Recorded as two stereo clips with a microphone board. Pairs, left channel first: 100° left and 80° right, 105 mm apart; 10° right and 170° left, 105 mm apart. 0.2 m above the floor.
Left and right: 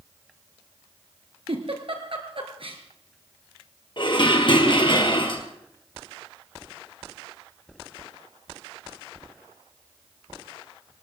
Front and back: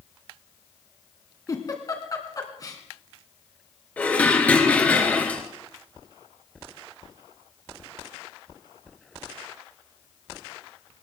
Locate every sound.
1.5 s a giggle: 65° right, 2 m
4.0 s dishes clattering: 65° left, 2.5 m